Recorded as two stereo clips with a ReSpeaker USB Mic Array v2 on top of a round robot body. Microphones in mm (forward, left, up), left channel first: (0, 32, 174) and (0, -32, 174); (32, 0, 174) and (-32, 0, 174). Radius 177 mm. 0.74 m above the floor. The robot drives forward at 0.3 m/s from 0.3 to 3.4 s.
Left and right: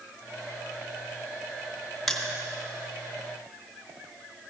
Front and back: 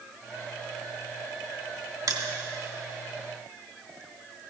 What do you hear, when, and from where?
2.1 s crushing: straight behind, 1.5 m